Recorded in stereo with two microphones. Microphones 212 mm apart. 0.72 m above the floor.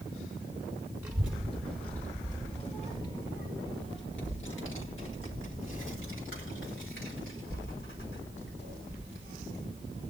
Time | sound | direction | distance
1.0 | a child speaking | 10° right (ahead or behind) | 1.2 m